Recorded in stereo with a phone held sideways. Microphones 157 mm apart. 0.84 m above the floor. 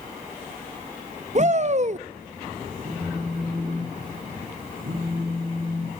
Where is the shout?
50° right (ahead or behind), 0.6 m.